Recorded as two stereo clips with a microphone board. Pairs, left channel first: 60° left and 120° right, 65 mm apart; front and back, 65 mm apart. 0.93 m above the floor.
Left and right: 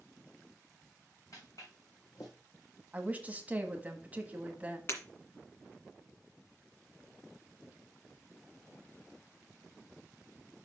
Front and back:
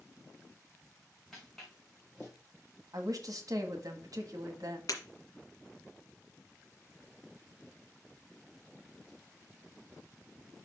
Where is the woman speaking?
175° left, 1.3 m.